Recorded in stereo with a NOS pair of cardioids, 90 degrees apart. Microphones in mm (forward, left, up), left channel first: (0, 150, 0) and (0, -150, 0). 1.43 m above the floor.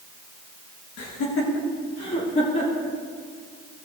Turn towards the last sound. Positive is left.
turn(degrees=25)